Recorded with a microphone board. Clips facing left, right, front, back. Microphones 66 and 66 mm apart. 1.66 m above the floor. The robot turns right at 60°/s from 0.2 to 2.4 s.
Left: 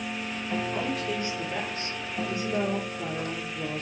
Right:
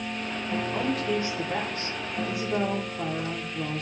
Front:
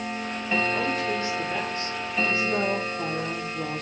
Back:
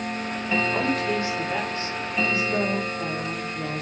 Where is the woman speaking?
170° right, 1.3 m; by 3.8 s 70° right, 1.3 m.